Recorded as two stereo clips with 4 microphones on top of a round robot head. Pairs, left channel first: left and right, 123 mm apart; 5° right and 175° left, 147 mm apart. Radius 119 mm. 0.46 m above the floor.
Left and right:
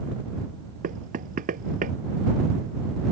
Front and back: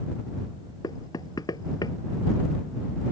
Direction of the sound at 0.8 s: 75° right.